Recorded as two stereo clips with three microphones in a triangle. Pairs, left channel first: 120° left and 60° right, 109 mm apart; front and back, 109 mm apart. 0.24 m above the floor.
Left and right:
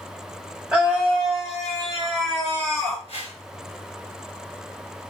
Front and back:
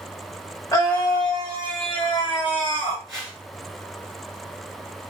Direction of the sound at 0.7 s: 10° left.